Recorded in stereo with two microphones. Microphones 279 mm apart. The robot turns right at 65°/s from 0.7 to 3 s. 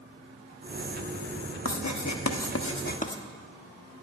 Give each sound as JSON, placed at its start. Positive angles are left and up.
{"t": 1.6, "sound": "writing", "azimuth_deg": 60, "distance_m": 1.1}